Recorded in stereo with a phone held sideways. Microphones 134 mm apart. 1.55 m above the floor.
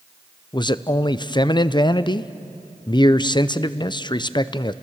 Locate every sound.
0.5 s a man speaking: 35° left (ahead or behind), 0.6 m